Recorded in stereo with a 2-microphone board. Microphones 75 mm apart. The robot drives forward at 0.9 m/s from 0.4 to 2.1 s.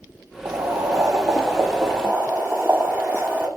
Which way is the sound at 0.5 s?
55° right (ahead or behind).